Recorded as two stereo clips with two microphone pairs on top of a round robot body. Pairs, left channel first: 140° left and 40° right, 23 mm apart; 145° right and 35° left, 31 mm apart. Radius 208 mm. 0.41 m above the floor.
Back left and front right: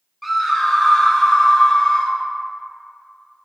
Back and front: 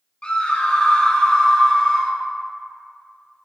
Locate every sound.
0.2 s a scream: 110° right, 1.5 m; by 2.2 s 145° left, 1.5 m